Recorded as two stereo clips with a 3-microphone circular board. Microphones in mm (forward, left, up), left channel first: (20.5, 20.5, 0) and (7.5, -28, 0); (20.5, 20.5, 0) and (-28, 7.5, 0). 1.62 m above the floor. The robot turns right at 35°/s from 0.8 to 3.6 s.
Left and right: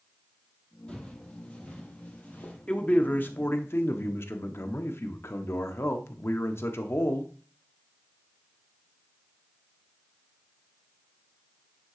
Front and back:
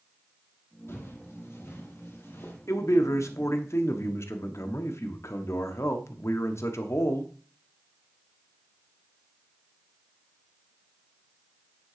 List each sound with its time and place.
0.9 s footsteps: 5° left, 3 m; by 2.6 s 25° left, 2.5 m
2.7 s a man speaking: 5° left, 1.1 m; by 7.3 s 40° left, 1.1 m